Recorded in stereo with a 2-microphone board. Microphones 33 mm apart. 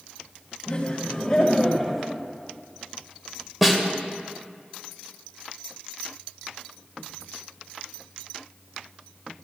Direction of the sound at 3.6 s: Centre (ahead or behind).